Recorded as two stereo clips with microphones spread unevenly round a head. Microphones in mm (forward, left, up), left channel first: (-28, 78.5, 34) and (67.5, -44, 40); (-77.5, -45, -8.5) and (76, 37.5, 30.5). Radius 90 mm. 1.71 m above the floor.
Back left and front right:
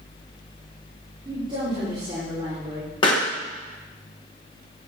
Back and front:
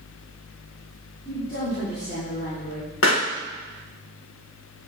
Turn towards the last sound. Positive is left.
turn(degrees=-170)